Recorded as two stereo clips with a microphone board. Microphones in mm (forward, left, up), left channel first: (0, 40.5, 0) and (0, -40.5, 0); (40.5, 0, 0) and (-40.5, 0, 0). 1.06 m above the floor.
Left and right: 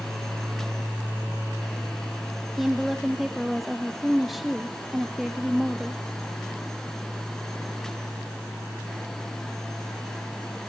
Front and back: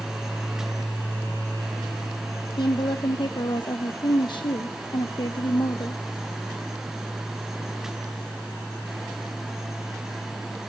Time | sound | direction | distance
2.6 | a woman speaking | straight ahead | 0.8 m